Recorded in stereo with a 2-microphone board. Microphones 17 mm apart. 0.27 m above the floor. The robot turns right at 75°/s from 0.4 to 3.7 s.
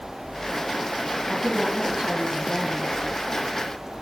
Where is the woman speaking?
145° right, 4.5 m; by 2.9 s 20° right, 4.5 m.